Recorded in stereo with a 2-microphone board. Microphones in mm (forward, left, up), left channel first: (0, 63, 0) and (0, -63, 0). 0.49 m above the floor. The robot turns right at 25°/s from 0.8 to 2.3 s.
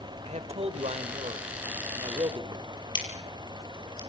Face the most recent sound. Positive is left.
turn(degrees=40)  # may be behind; listen again after turning